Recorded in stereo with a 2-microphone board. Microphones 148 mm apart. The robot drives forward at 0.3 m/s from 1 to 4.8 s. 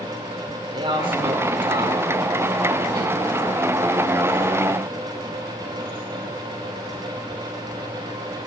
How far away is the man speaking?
About 1.9 m.